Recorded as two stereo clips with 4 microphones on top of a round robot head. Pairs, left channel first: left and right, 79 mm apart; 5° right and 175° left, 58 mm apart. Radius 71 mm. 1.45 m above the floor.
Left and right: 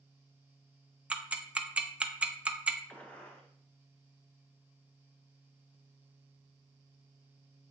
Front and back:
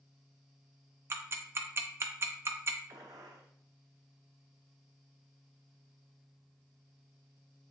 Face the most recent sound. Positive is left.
turn(degrees=165)